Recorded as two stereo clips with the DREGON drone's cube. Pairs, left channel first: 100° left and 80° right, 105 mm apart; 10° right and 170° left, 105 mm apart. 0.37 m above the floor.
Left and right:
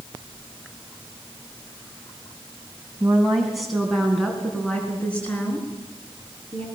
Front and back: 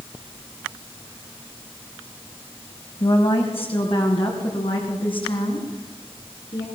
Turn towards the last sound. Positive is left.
turn(degrees=30)